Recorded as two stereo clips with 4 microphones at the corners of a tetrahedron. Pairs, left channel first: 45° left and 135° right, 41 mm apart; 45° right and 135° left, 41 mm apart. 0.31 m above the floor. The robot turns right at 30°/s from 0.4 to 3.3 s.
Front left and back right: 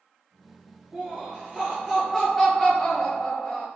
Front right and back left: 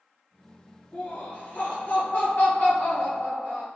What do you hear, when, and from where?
0.9 s laughter: 90° right, 1.5 m; by 3.7 s 20° right, 1.5 m